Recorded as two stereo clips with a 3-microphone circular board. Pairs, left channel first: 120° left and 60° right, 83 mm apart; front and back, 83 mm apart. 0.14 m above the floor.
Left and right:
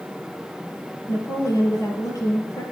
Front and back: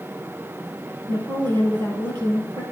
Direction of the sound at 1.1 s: 165° left.